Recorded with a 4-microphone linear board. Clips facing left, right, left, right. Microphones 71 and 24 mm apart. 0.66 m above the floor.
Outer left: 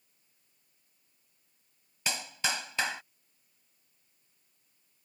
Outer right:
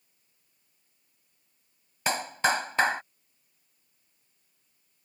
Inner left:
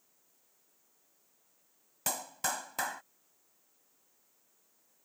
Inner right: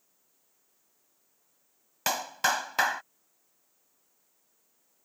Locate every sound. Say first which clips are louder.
2.1 s a clap: outer right 8 dB, inner right 8 dB; 40° right (ahead or behind)